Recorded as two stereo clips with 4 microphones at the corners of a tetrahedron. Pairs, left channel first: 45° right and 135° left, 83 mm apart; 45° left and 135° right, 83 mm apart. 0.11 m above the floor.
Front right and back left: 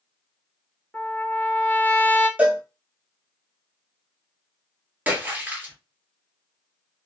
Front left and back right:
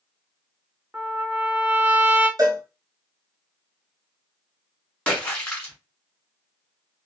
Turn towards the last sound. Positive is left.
turn(degrees=100)